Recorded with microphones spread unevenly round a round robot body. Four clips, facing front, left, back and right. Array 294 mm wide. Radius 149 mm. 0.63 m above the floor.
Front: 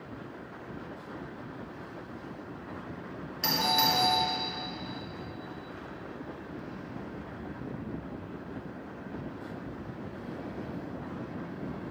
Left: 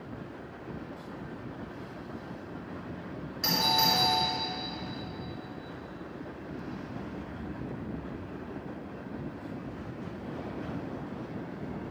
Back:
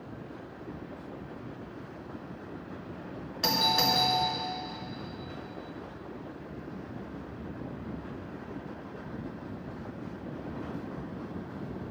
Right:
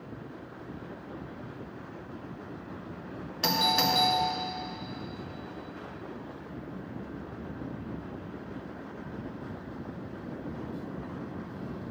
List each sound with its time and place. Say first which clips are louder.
3.4 s a doorbell: right 1 dB, even; 115° right, 1.8 m